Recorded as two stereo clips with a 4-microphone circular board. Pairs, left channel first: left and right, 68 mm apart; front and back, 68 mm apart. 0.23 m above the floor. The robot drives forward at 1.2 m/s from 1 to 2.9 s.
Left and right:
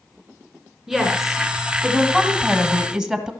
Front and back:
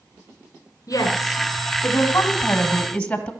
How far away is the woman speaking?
About 3 m.